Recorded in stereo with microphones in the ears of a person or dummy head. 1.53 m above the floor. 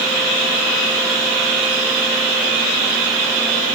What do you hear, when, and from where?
Only background noise.